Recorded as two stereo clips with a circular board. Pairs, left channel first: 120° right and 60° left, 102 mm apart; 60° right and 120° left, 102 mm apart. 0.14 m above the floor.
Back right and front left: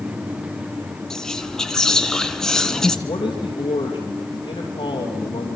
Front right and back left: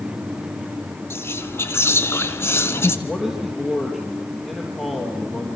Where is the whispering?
40° right, 1.1 m.